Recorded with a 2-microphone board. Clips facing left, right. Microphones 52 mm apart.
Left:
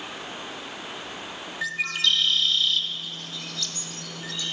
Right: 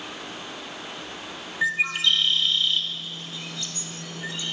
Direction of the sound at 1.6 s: 20° right (ahead or behind).